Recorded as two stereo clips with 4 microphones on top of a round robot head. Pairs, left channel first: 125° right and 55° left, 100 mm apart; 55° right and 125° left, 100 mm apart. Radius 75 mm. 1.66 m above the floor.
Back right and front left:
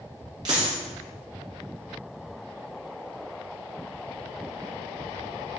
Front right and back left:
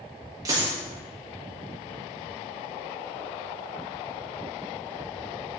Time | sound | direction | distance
0.5 | a dropped coin | 85° left | 1.1 m